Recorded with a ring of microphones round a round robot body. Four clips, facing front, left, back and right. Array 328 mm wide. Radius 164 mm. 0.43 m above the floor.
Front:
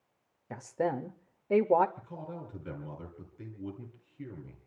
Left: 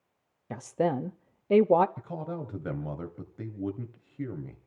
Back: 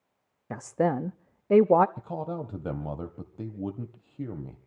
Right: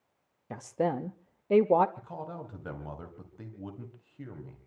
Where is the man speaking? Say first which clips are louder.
Left 4 dB, back 9 dB; 155° left, 2.5 m.